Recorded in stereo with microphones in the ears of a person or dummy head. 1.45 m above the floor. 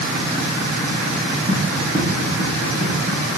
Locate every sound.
1.5 s running footsteps: 45° right (ahead or behind), 8 m